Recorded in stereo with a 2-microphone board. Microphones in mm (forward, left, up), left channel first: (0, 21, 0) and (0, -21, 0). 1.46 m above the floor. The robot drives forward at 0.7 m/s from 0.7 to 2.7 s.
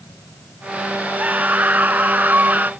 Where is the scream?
40° right (ahead or behind).